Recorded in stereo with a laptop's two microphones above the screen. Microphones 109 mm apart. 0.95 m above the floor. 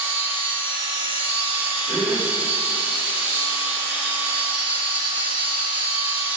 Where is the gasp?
10° left (ahead or behind), 2 m.